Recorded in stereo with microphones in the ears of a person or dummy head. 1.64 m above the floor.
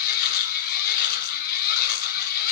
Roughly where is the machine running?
Left.